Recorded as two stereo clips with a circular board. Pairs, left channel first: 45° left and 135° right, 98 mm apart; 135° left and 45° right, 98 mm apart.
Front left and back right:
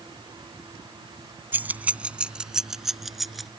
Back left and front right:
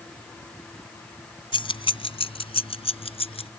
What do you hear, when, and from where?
1.5 s keys jangling: 155° left; by 3.5 s 135° left